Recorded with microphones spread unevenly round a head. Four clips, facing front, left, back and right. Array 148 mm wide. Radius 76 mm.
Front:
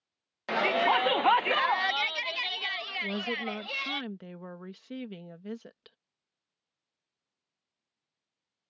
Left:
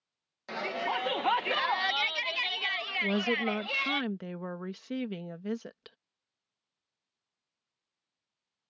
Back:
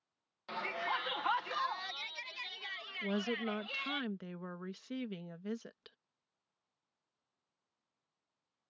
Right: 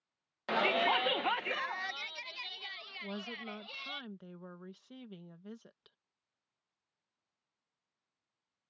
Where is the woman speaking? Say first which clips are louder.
Left 14 dB, front 1 dB; 85° left.